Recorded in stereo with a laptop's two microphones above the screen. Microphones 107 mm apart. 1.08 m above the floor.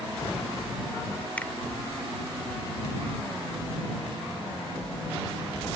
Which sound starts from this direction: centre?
A finger snap, at 1.4 s.